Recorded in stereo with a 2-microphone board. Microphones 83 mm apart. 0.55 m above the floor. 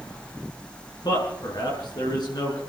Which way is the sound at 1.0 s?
60° left (ahead or behind).